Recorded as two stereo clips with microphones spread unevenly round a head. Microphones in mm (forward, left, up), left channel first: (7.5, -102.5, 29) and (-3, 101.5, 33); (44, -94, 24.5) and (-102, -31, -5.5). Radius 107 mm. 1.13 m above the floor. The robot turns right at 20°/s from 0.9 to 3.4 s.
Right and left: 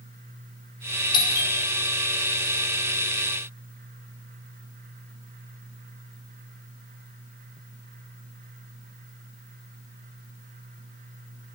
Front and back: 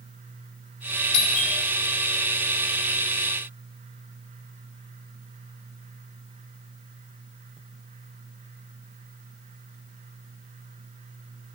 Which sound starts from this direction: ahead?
A doorbell, at 1.1 s.